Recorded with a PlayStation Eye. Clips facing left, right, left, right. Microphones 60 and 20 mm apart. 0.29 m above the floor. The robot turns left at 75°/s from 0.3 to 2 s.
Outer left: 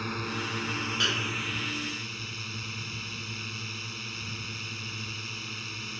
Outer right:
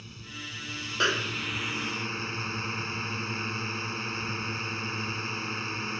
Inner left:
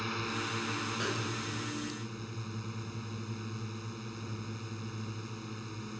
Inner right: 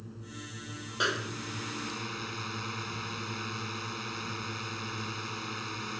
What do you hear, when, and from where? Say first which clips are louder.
0.0 s a drone: outer left 10 dB, inner left 10 dB; 85° left; by 6.0 s 40° right
1.0 s a snare drum: outer right 6 dB, inner right 4 dB; 145° right; by 1.7 s 165° left